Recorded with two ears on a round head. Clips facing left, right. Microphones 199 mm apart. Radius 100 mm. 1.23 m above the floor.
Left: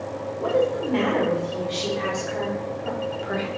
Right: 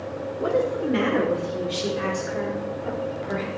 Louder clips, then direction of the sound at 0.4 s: Left 1 dB; 25° right (ahead or behind).